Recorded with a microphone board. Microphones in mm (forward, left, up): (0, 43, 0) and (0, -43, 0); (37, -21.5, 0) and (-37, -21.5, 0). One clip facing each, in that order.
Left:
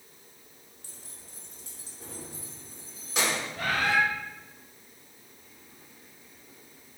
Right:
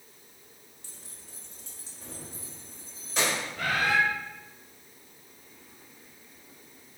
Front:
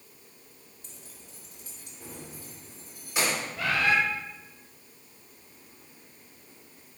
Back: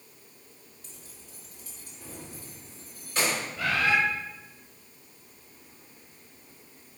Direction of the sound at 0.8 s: 55° left.